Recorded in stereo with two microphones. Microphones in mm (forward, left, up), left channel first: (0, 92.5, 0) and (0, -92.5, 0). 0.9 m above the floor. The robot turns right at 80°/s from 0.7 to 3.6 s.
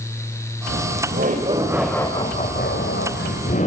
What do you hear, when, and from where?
0.7 s laughter: 95° right, 4 m; by 3.7 s 140° left, 4 m